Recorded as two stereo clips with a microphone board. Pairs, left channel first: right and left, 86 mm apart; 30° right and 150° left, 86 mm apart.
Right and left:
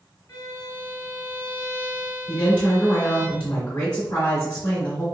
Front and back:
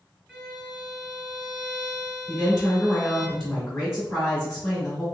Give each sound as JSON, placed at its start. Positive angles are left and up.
{"t": 0.3, "sound": "a violin", "azimuth_deg": -115, "distance_m": 1.7}
{"t": 2.3, "sound": "a woman speaking", "azimuth_deg": -115, "distance_m": 1.6}